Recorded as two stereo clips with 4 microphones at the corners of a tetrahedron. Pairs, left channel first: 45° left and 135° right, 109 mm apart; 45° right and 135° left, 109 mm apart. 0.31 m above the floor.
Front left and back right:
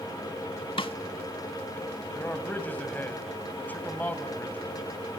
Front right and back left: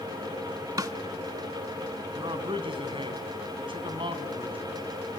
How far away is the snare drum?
About 0.7 m.